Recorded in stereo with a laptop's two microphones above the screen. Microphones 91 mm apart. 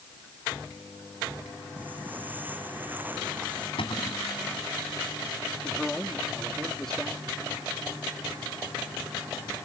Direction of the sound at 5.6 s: 5° left (ahead or behind).